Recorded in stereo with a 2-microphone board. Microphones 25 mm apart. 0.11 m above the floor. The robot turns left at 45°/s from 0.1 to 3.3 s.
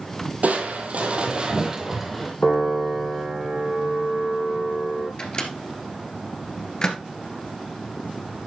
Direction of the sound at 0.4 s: 100° right.